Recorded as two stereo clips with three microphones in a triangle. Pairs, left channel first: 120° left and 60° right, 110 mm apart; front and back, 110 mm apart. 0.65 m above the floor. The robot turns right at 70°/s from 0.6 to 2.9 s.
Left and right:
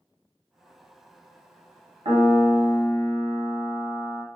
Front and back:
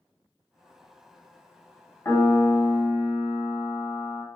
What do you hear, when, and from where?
2.0 s a piano: 70° right, 1.3 m; by 4.2 s 10° right, 1.3 m